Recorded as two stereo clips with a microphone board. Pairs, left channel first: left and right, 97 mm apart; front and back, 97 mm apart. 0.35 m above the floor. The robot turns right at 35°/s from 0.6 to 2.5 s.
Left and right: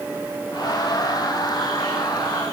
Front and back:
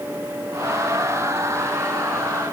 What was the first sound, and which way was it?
Only background noise.